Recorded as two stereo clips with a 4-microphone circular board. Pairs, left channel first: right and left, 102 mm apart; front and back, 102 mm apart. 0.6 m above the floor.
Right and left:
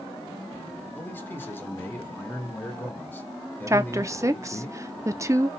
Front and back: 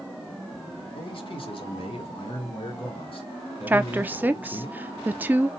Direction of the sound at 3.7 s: 120° left.